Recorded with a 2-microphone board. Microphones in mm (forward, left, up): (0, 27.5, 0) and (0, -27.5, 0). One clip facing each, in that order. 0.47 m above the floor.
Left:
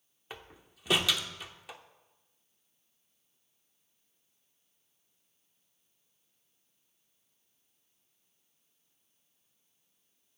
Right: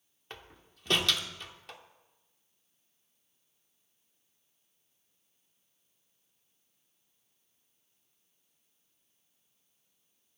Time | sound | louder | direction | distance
0.3 | a door slam | left 2 dB | 10° left (ahead or behind) | 0.8 m